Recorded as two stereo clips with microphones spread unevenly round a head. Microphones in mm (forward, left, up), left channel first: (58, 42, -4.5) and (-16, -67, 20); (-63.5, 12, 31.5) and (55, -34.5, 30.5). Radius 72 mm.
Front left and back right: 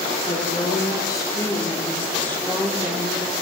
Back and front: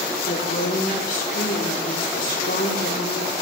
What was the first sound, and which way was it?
A woman speaking, 115° left.